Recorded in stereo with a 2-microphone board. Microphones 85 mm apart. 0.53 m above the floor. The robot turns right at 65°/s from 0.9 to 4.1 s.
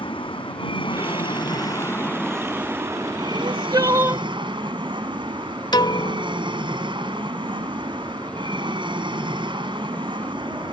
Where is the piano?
55° left (ahead or behind).